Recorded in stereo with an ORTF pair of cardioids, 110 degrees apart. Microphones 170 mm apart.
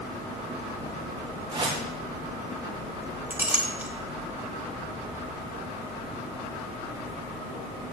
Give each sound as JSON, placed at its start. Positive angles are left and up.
{"t": 1.5, "sound": "a whoosh", "azimuth_deg": -30, "distance_m": 1.4}
{"t": 3.3, "sound": "a clink", "azimuth_deg": -10, "distance_m": 1.0}